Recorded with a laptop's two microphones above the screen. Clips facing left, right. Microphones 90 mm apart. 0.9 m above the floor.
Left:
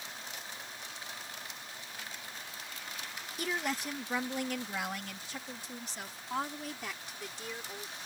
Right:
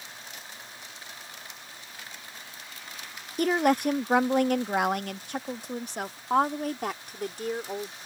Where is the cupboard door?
I don't hear a cupboard door.